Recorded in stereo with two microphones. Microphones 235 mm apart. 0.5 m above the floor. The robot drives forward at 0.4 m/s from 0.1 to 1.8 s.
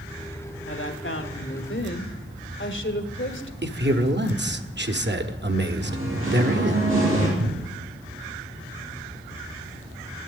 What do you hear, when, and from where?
0.7 s a woman speaking: 60° left (ahead or behind), 1.4 m; by 3.5 s 55° left (ahead or behind), 1.5 m
3.6 s a man speaking: 50° right (ahead or behind), 1.1 m
5.8 s singing: 60° right (ahead or behind), 6 m
7.4 s a cupboard door: 80° right, 1.0 m